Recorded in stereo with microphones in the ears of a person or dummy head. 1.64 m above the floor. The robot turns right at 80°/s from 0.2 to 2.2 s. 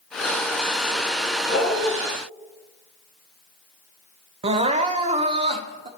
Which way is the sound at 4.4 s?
35° right (ahead or behind).